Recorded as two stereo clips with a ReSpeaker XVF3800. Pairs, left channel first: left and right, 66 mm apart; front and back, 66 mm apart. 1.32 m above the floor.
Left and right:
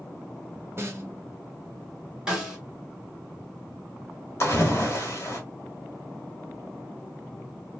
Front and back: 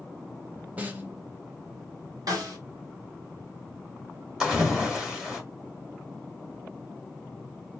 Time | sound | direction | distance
0.8 | a snare drum | 120° right | 0.7 m
2.3 | a snare drum | 170° right | 1.2 m
4.4 | a splash | 105° left | 1.3 m